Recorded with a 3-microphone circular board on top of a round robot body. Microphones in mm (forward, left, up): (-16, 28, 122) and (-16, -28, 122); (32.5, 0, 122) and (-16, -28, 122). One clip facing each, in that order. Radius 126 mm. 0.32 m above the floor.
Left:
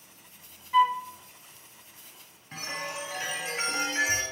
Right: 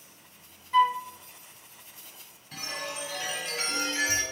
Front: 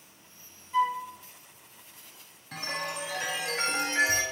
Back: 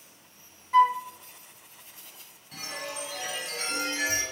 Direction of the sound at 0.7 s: 175° left.